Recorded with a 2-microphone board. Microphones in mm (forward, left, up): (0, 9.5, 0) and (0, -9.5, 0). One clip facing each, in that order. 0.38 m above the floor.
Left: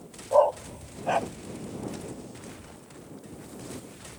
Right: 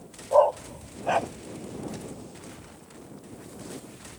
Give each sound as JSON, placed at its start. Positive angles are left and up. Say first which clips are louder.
{"t": 0.3, "sound": "a dog barking", "louder": "right 1 dB", "side_deg": -10}